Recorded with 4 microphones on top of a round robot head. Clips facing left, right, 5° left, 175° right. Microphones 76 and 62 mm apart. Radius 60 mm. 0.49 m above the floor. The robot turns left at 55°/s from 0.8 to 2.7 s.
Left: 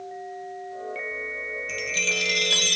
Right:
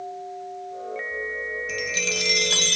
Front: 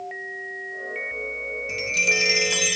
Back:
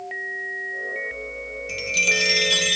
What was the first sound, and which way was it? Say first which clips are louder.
A chime: right 1 dB, back 1 dB; 10° right.